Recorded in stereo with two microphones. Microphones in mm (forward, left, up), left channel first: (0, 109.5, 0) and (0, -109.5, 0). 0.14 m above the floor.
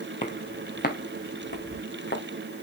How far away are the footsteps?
About 2 m.